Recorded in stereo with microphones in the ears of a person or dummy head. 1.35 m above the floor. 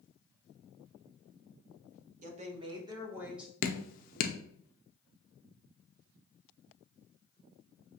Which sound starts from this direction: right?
A woman speaking, at 2.2 s.